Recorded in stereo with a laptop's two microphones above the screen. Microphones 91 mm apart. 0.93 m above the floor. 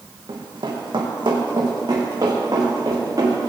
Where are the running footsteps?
70° right (ahead or behind), 2.5 m; by 3.5 s 45° right (ahead or behind), 5 m.